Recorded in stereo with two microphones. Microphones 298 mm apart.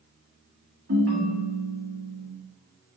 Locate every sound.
0.9 s a ringtone: 45° right (ahead or behind), 1.4 m